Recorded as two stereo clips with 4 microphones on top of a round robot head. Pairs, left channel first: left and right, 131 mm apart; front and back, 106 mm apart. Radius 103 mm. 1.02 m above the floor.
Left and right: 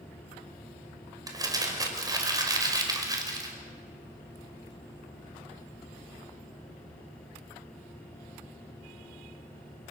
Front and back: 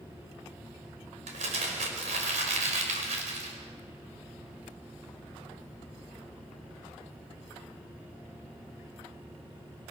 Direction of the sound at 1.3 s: 150° right.